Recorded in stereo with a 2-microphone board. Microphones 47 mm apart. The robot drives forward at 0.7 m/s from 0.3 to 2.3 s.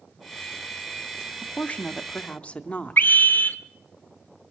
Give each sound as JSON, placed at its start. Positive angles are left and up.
{"t": 1.4, "sound": "a woman speaking", "side_deg": 30, "distance_m": 0.9}
{"t": 3.0, "sound": "a scream", "side_deg": 45, "distance_m": 1.3}